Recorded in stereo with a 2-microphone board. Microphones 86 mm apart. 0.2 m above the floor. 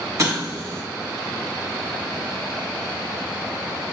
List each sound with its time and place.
0.2 s an explosion: 40° right (ahead or behind), 0.8 m